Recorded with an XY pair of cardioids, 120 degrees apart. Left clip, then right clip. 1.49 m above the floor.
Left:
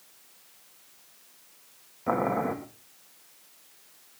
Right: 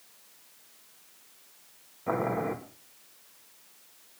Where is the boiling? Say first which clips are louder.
Left 3 dB; 20° left, 2.5 m.